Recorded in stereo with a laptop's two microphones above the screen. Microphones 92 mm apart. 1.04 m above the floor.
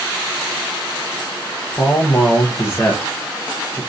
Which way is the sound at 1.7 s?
25° left (ahead or behind).